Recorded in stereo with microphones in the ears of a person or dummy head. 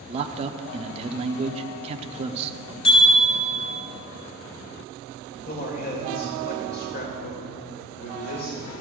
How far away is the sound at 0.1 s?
About 0.8 m.